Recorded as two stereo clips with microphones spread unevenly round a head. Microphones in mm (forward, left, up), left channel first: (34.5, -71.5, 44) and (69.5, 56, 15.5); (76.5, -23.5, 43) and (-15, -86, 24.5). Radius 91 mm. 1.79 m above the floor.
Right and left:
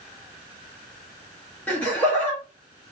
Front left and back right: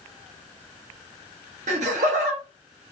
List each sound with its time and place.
1.7 s laughter: 175° right, 1.0 m